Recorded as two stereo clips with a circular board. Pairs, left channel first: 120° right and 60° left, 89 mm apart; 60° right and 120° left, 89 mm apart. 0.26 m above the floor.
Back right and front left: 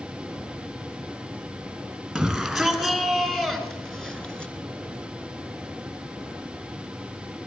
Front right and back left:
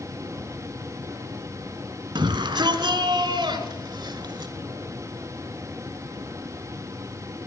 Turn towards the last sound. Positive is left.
turn(degrees=160)